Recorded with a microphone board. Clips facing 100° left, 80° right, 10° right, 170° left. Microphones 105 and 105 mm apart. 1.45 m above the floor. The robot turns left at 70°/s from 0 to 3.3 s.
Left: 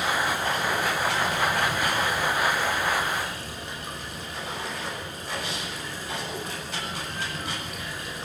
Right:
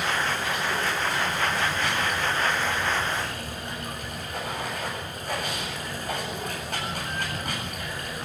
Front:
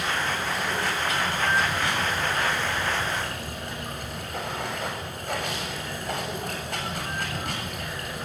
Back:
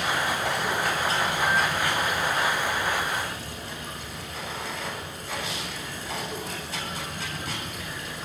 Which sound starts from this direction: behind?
Running water, at 0.0 s.